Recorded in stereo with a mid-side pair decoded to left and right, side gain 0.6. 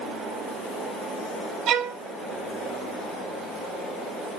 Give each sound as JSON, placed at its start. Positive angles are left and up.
{"t": 1.7, "sound": "a violin", "azimuth_deg": -60, "distance_m": 0.7}